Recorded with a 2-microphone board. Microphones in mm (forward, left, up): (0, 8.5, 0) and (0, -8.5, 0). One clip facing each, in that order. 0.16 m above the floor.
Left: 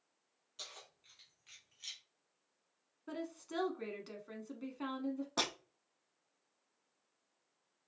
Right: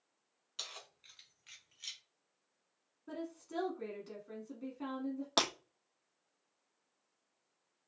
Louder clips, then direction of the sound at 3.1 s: Even; 30° left (ahead or behind).